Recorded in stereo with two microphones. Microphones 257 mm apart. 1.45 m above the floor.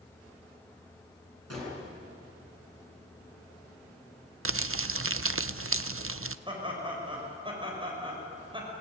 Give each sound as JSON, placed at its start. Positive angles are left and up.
{"t": 1.5, "sound": "a gunshot", "side_deg": -70, "distance_m": 8.5}
{"t": 4.5, "sound": "crumpling", "side_deg": -55, "distance_m": 0.6}
{"t": 6.5, "sound": "laughter", "side_deg": -20, "distance_m": 7.0}